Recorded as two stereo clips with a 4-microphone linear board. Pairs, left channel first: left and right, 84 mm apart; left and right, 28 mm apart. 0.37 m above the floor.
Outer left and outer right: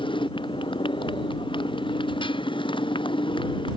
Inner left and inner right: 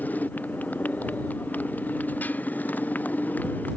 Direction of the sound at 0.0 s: 80° left.